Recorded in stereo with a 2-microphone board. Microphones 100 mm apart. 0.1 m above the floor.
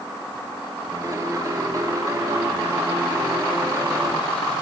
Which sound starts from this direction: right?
A piano, at 0.9 s.